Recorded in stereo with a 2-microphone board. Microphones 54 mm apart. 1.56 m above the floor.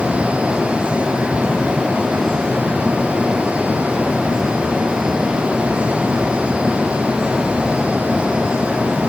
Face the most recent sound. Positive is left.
No sound to turn to.